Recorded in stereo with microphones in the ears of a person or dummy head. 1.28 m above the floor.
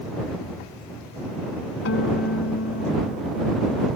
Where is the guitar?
70° left (ahead or behind).